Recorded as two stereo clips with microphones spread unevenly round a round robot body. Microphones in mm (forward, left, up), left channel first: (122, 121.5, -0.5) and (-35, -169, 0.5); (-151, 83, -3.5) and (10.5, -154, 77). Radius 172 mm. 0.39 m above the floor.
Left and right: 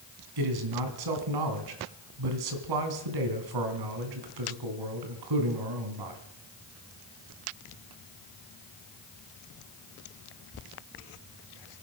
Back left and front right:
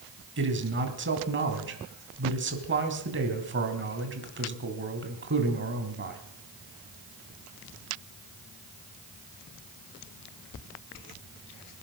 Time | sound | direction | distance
0.4 | a man speaking | 110° right | 3 m